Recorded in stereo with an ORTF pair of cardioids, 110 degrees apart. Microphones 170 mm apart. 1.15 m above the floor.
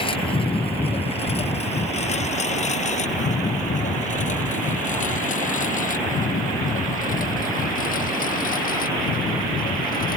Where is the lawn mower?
30° left; by 10.2 s 55° left.